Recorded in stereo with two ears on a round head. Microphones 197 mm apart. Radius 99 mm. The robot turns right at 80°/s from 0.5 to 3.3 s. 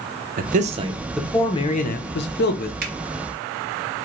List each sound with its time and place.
0.4 s a man speaking: 55° right, 0.6 m; by 2.7 s 125° left, 0.6 m
2.8 s a finger snap: 45° right (ahead or behind), 0.8 m; by 2.9 s 50° right (ahead or behind), 0.8 m